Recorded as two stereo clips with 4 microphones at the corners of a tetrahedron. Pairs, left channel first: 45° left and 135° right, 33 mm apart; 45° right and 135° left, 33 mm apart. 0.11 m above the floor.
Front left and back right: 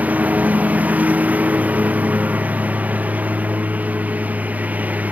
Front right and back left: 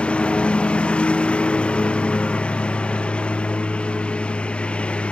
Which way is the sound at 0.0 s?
100° right.